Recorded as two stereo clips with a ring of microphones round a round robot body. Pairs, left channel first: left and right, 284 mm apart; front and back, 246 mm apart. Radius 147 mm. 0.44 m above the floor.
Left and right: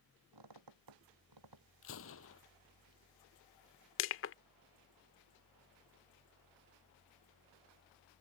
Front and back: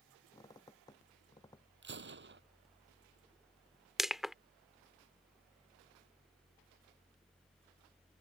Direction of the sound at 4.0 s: 90° left.